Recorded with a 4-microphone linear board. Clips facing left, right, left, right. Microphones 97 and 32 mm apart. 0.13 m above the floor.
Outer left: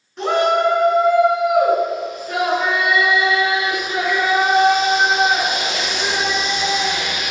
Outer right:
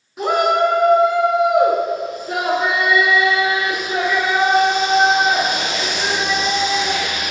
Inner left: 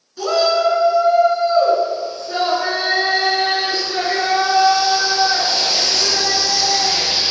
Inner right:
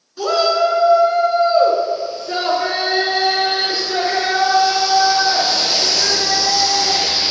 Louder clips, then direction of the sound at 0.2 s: Even, even; 5° right (ahead or behind).